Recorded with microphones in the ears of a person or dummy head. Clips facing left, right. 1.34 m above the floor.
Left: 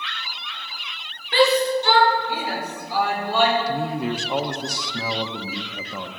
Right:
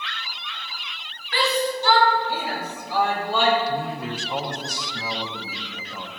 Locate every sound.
1.3 s a shout: 30° left (ahead or behind), 4 m; by 3.6 s centre (ahead or behind), 5.5 m
3.7 s a man speaking: 60° left (ahead or behind), 1.2 m